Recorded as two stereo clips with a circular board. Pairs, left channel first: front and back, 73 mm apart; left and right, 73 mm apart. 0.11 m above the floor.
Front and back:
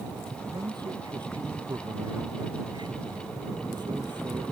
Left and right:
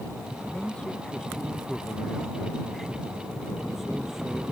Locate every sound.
0.5 s a man speaking: 165° left; by 4.4 s 175° right